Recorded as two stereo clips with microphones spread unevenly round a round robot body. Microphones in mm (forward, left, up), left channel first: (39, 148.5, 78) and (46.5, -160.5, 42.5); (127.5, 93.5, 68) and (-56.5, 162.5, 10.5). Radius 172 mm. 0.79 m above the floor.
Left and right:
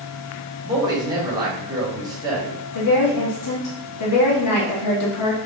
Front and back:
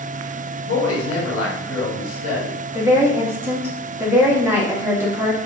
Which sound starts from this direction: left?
A woman speaking, at 2.7 s.